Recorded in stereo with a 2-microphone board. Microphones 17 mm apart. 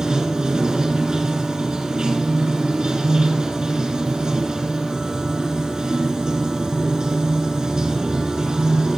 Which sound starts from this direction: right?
Running water, at 0.0 s.